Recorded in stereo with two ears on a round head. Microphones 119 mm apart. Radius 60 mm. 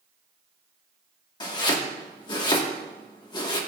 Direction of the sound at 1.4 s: 35° left (ahead or behind).